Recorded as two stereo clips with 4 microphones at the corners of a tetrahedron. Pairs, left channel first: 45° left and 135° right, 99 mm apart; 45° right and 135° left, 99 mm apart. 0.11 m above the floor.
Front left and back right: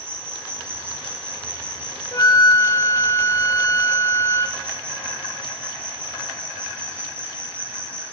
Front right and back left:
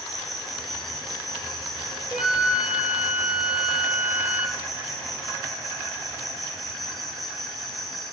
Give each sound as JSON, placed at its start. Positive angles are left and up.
{"t": 0.0, "sound": "an insect", "azimuth_deg": -135, "distance_m": 1.6}
{"t": 2.1, "sound": "a flute", "azimuth_deg": 60, "distance_m": 0.6}